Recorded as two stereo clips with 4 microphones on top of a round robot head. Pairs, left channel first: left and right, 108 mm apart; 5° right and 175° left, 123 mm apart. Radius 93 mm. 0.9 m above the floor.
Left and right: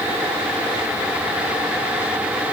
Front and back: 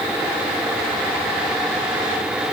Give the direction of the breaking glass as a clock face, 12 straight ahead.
No breaking glass in this recording.